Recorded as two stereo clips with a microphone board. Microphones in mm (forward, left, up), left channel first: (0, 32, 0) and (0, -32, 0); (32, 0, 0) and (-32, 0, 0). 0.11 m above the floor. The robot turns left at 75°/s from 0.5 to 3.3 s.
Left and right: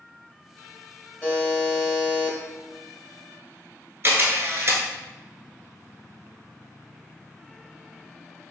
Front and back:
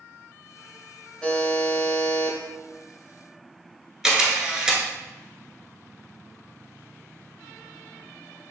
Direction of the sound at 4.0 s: 105° right.